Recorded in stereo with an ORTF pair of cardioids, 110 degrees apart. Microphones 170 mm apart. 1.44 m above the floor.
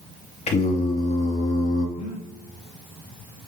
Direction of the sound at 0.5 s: 40° left.